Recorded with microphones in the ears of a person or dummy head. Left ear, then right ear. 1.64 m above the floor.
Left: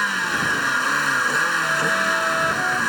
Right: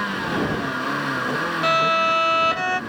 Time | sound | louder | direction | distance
0.0 | a vehicle | left 3 dB | 65° left (ahead or behind) | ?
1.6 | a violin | right 2 dB | 70° right (ahead or behind) | ?